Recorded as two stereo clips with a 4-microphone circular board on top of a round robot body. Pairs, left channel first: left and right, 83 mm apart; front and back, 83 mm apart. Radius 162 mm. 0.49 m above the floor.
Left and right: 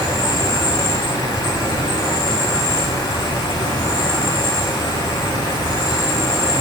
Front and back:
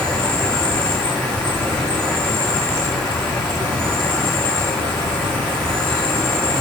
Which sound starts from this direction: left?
An insect, at 0.0 s.